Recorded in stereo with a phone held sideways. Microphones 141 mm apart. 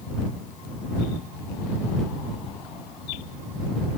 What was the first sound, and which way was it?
Only background noise.